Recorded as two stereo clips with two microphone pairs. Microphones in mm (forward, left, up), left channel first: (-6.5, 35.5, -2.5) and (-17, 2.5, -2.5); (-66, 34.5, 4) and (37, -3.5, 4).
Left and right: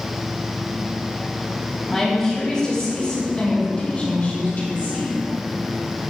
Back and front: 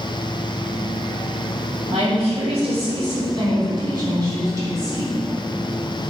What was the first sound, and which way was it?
A woman speaking, 10° right.